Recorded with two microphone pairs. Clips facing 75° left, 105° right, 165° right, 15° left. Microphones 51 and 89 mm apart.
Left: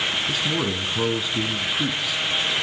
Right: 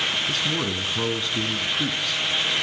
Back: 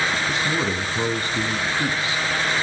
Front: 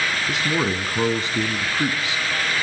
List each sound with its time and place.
0.3 s a man speaking: straight ahead, 1.2 m